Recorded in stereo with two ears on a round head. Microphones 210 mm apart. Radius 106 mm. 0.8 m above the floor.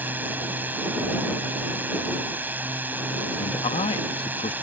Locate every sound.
0.0 s a drone: 10° right (ahead or behind)
3.4 s a man speaking: 25° left (ahead or behind)